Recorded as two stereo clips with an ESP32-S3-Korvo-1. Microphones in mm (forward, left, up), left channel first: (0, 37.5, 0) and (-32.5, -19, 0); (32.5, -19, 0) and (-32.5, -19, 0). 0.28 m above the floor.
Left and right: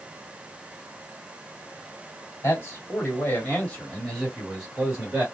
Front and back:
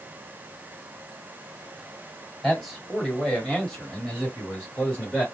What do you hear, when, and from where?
2.4 s a man speaking: 90° left, 1.9 m; by 5.2 s 55° right, 1.6 m